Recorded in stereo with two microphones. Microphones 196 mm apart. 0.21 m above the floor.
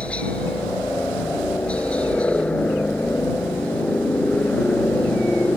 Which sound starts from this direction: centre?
A helicopter, at 0.0 s.